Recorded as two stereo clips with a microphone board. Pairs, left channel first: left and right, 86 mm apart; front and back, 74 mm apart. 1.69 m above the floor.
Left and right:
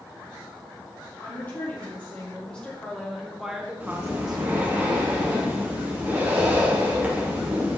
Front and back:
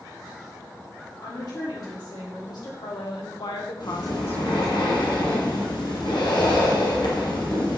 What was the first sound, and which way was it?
A woman speaking, 20° left.